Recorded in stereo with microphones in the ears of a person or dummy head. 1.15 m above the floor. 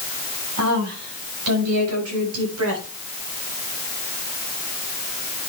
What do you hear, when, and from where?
0.6 s a woman speaking: 85° right, 6.5 m; by 2.9 s 75° right (ahead or behind), 7.5 m